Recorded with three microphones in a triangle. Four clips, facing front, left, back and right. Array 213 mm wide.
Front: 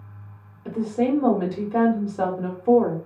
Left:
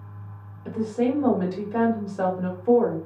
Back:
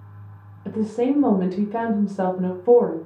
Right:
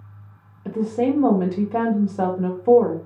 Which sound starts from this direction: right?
A woman speaking, at 0.7 s.